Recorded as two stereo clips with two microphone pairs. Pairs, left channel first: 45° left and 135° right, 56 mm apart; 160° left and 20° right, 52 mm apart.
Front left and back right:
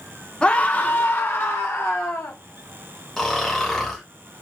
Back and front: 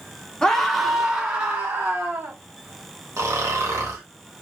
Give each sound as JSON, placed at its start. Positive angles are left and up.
{"t": 0.4, "sound": "a scream", "azimuth_deg": 90, "distance_m": 0.8}
{"t": 3.2, "sound": "snoring", "azimuth_deg": -40, "distance_m": 1.2}